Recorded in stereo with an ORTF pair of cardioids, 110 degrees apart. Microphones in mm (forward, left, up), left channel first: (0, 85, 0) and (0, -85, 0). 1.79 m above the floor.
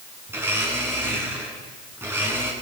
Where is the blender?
15° right, 8 m.